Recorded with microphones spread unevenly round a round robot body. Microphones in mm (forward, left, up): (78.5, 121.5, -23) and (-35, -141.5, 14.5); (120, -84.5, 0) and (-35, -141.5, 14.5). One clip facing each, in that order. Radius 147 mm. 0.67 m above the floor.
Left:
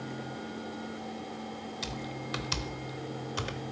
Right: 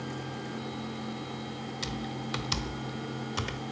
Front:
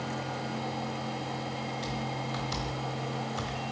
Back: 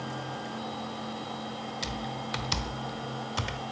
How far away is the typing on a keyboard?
About 0.6 m.